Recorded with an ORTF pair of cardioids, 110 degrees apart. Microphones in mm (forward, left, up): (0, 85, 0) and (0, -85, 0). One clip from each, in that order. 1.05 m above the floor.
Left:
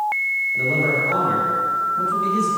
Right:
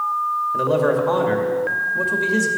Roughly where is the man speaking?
Ahead right.